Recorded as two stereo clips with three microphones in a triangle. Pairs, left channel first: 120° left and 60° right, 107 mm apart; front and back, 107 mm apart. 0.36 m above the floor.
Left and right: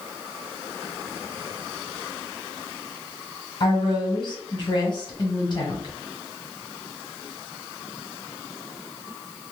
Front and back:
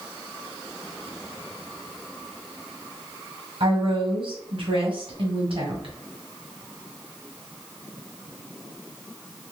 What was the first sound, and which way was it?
A woman speaking, 160° left.